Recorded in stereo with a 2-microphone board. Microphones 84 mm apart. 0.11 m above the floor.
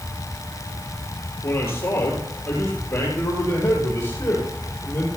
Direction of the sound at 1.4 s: 30° left (ahead or behind).